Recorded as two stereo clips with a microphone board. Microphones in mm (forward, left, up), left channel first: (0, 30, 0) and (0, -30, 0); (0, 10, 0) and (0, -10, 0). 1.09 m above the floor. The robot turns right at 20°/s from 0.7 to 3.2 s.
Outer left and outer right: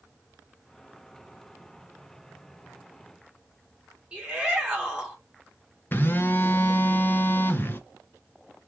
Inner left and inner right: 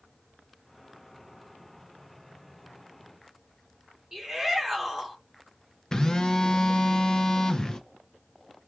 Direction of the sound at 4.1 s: 20° right (ahead or behind).